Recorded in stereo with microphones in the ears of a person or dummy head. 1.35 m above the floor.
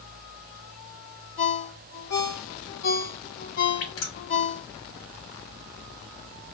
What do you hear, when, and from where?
1.4 s a ringtone: 70° left (ahead or behind), 3.5 m
3.8 s dripping: 80° left, 3.5 m